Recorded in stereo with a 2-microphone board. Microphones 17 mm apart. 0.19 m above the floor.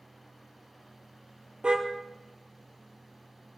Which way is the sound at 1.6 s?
55° right (ahead or behind).